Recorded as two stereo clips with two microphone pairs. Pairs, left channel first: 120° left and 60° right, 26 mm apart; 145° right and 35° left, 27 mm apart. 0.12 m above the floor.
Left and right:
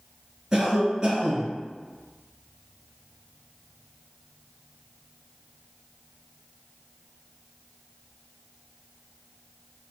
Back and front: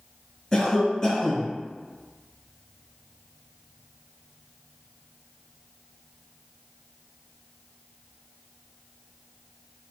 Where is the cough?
95° right, 1.1 m.